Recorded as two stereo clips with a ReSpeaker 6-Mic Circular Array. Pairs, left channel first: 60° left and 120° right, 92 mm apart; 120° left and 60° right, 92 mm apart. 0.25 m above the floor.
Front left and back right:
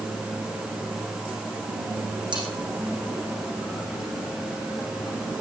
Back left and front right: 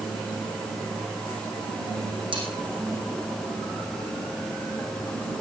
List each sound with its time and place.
2.3 s cutlery clinking: 90° right, 7.5 m